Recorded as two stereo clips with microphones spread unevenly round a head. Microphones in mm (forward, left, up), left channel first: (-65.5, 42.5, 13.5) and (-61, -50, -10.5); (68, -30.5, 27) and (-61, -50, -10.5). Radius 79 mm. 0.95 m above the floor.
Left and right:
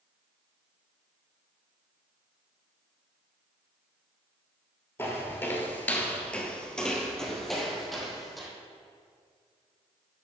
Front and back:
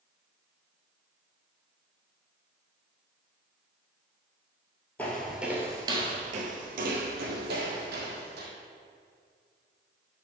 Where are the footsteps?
60° left, 1.2 m; by 8.5 s 175° left, 2.5 m.